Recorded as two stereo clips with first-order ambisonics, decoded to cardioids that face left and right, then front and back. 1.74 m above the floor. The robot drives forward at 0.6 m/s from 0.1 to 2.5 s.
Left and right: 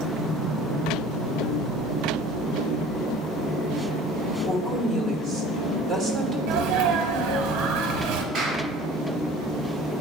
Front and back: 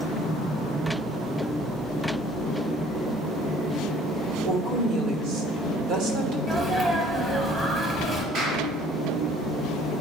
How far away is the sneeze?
About 0.7 m.